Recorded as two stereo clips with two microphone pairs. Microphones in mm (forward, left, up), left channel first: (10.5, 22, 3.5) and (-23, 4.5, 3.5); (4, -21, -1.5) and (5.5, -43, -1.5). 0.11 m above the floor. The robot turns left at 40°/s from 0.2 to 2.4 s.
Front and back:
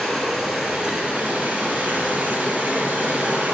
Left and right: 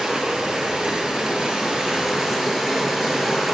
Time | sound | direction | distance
0.0 | running water | 60° right | 2.0 m